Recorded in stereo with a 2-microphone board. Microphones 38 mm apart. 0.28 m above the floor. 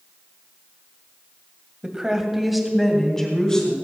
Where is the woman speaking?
20° right (ahead or behind), 1.7 m; by 3.7 s 20° left (ahead or behind), 3 m.